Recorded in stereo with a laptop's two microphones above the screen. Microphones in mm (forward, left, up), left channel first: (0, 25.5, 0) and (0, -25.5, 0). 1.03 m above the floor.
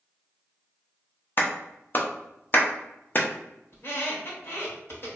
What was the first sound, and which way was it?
A clap, 40° left (ahead or behind).